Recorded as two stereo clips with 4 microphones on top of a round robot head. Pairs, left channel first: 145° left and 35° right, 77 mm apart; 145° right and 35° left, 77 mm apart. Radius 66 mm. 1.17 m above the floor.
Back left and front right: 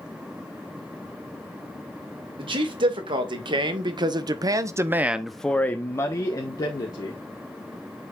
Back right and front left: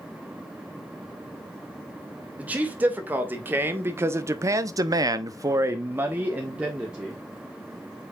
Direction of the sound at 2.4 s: 35° right.